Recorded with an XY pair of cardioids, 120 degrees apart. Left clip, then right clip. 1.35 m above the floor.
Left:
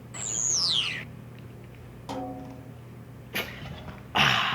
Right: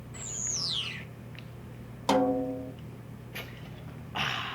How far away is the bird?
About 0.5 m.